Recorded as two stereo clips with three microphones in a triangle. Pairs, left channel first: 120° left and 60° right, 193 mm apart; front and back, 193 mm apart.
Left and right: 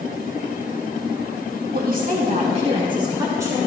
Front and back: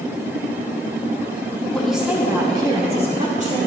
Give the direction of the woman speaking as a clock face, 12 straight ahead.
3 o'clock.